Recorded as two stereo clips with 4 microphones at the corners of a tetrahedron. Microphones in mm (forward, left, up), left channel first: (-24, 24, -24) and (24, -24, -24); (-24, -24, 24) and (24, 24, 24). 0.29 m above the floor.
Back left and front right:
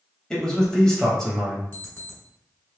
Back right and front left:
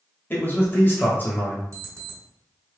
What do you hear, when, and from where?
0.3 s a man speaking: 150° right, 1.0 m
1.7 s an alarm clock: 85° left, 1.3 m